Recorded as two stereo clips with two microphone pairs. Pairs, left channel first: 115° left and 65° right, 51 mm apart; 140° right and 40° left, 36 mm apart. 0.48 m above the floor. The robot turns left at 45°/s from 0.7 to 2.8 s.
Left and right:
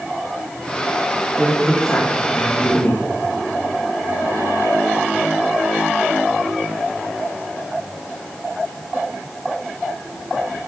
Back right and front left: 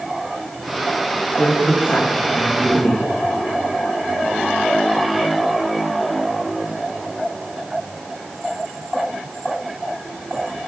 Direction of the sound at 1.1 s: 125° right.